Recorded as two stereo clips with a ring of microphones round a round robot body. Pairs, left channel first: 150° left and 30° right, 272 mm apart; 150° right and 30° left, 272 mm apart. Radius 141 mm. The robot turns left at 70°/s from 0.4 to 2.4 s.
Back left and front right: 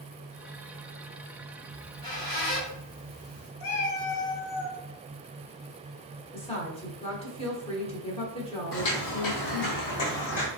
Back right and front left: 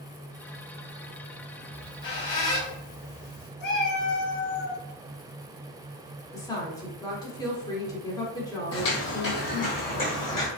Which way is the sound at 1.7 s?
120° right.